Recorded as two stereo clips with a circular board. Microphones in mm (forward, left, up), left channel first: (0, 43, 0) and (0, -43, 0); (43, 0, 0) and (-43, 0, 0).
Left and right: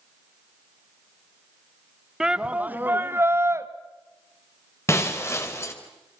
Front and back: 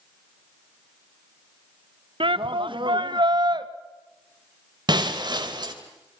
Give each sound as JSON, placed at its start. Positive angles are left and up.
{"t": 2.2, "sound": "a shout", "azimuth_deg": -170, "distance_m": 1.0}
{"t": 4.9, "sound": "breaking glass", "azimuth_deg": 150, "distance_m": 3.0}